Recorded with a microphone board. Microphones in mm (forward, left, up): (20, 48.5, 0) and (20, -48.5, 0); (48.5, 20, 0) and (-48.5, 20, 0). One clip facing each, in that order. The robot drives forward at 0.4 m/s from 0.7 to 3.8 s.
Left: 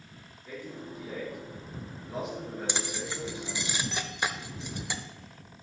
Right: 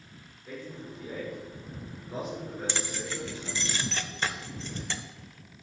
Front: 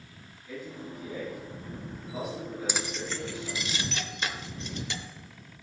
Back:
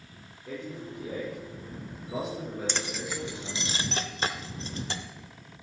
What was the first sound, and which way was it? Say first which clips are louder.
A man speaking: even, back 2 dB; straight behind.